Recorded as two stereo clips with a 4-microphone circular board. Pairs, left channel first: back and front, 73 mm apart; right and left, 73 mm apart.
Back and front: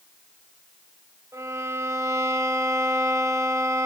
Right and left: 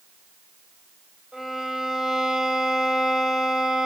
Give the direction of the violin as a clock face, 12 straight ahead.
12 o'clock.